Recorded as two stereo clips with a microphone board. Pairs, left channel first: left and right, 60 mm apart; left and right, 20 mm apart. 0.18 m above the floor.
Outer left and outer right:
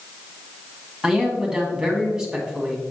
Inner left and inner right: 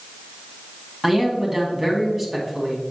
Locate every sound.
1.0 s a man speaking: 15° right (ahead or behind), 1.4 m